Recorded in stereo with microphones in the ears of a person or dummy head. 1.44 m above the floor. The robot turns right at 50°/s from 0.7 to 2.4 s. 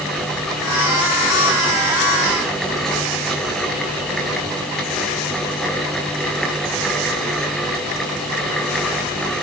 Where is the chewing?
I don't hear chewing.